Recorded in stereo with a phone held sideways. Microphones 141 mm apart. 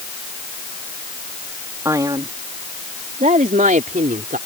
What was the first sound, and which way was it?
A man speaking, 20° right (ahead or behind).